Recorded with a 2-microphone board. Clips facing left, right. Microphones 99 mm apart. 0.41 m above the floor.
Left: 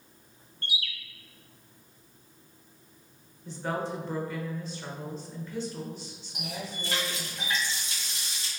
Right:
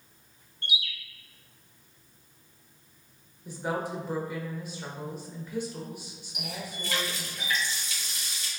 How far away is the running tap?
About 1.7 m.